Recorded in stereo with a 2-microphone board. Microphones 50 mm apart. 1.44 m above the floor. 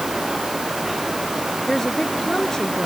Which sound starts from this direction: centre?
A woman speaking, at 1.7 s.